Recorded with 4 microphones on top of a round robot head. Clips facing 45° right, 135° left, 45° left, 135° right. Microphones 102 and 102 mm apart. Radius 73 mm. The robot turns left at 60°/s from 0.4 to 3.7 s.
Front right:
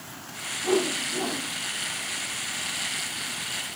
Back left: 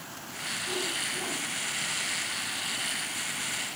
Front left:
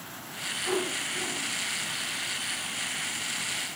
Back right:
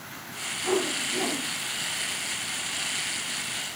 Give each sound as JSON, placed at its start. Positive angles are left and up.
{"t": 0.6, "sound": "a whoosh", "azimuth_deg": -65, "distance_m": 2.5}